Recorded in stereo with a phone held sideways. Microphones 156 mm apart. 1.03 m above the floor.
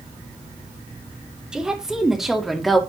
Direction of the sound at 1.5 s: 5° right (ahead or behind).